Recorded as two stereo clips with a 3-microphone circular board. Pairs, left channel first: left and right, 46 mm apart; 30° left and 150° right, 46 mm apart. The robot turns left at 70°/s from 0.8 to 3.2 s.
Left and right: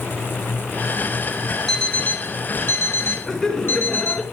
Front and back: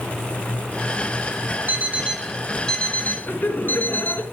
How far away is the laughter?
About 2 m.